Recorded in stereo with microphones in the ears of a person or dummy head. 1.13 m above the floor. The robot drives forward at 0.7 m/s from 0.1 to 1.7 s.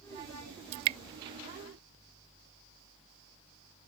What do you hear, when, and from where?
0.7 s dripping: 40° right (ahead or behind); by 1.0 s 45° right (ahead or behind)